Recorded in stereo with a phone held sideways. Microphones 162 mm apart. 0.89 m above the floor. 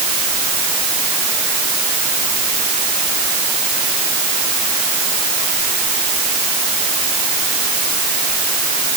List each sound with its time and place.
Only background noise.